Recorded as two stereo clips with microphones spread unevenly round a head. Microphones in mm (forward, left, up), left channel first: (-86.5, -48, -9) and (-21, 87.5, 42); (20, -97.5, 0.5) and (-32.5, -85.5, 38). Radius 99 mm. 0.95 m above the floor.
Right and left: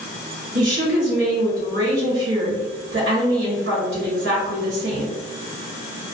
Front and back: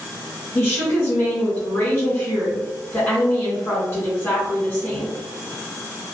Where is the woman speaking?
25° left, 1.4 m.